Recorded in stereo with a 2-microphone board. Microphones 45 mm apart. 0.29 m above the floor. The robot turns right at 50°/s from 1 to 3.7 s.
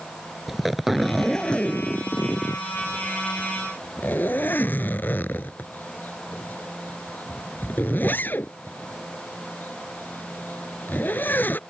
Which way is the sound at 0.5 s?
5° right (ahead or behind).